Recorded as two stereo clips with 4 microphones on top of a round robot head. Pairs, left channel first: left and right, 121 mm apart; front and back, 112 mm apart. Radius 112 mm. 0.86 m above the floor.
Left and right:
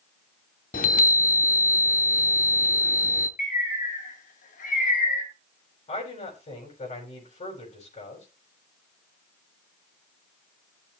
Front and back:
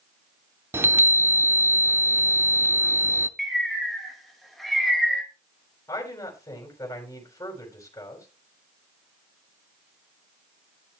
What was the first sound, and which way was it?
A chime, 115° left.